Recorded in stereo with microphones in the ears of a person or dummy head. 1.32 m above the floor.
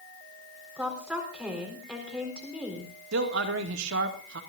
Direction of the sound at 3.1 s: 75° right (ahead or behind).